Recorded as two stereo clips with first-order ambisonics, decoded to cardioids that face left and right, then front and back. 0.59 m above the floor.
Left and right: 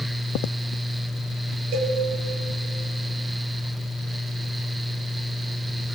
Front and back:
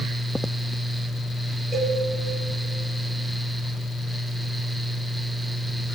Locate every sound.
1.7 s a cowbell: 105° right, 1.0 m